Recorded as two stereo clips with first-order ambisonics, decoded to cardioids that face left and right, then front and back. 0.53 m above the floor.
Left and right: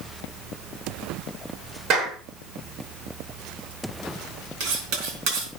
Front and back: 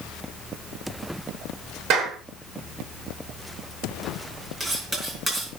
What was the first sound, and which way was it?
A clap, 140° right.